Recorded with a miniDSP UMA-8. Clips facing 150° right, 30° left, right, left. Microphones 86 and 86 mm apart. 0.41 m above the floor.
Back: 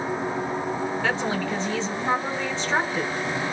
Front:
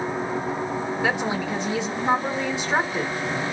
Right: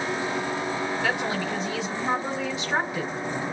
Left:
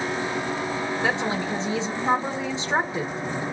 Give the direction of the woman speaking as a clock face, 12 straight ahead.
9 o'clock.